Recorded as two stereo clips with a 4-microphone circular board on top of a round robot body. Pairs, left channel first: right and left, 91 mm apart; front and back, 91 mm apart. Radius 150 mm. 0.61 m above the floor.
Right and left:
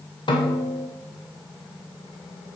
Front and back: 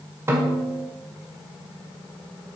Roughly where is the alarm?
No alarm in this recording.